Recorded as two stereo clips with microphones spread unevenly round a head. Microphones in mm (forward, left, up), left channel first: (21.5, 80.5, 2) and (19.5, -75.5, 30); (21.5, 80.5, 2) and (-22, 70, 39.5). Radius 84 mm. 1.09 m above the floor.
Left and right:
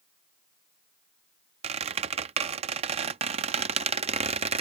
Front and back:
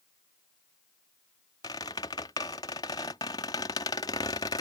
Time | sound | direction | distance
1.6 | a squeak | 55° right | ?